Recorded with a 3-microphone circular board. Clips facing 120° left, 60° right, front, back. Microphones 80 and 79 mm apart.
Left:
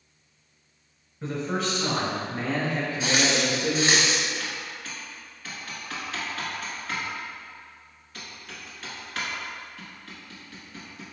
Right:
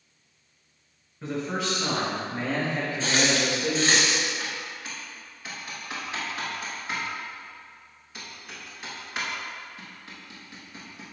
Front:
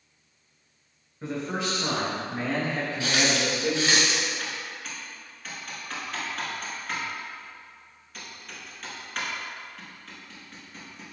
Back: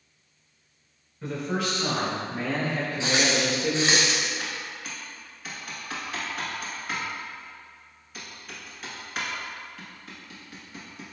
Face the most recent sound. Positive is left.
turn(degrees=-105)